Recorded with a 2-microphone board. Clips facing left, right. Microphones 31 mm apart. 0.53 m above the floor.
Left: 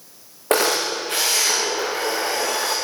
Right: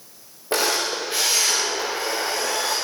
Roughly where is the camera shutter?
Left.